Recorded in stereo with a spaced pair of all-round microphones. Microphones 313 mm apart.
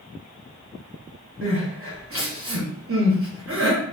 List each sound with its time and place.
1.4 s crying: 45° right (ahead or behind), 0.9 m